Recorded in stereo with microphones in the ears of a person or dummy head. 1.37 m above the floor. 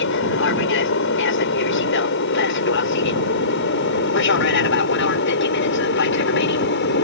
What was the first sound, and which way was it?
An aircraft, 60° left (ahead or behind).